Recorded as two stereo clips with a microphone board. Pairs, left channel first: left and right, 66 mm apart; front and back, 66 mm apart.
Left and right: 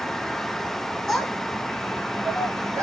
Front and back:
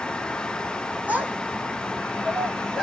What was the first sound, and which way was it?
A child speaking, 170° left.